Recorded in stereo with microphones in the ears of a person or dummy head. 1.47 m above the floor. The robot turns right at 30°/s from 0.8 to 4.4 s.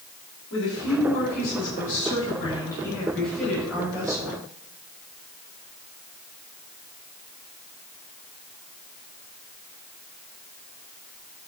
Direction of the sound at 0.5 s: 105° left.